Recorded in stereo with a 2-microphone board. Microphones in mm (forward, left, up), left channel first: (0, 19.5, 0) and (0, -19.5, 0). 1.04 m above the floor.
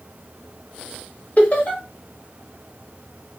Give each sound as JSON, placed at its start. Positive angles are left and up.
{"t": 1.4, "sound": "laughter", "side_deg": 45, "distance_m": 1.2}